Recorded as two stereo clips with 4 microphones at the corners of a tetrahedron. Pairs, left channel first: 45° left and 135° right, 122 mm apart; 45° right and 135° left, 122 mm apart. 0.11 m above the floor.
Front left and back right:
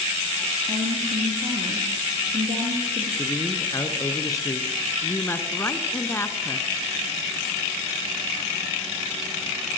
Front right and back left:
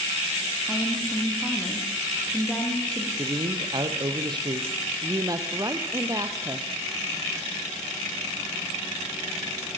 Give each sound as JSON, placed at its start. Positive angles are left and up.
{"t": 0.7, "sound": "a woman speaking", "azimuth_deg": -125, "distance_m": 4.0}
{"t": 3.2, "sound": "a man speaking", "azimuth_deg": 100, "distance_m": 2.5}
{"t": 5.0, "sound": "a woman speaking", "azimuth_deg": 100, "distance_m": 1.6}